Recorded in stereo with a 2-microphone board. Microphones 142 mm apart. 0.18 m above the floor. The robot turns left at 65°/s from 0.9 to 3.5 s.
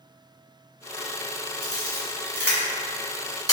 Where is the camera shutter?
30° right (ahead or behind), 1.8 m; by 3.5 s 25° left (ahead or behind), 1.8 m.